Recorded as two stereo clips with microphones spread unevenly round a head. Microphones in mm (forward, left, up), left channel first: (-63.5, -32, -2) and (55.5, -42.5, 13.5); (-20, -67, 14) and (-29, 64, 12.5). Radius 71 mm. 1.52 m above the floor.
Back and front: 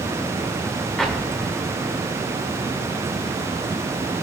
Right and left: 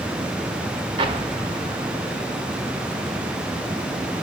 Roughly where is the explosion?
Left.